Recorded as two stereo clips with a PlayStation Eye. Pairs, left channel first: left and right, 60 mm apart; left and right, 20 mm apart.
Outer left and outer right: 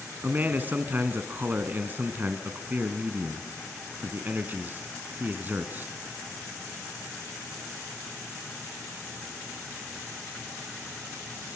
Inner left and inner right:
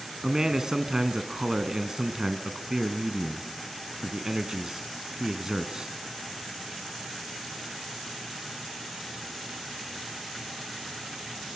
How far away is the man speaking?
About 1.5 m.